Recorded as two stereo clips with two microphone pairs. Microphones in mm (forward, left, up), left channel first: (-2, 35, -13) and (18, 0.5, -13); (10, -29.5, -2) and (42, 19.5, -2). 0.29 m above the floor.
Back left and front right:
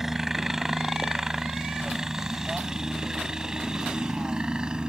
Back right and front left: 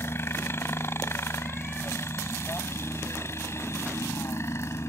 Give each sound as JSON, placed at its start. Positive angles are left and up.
{"t": 0.0, "sound": "a helicopter", "azimuth_deg": -140}